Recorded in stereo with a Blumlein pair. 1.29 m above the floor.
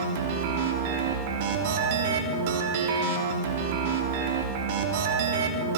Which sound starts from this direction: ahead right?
A machine running, at 0.0 s.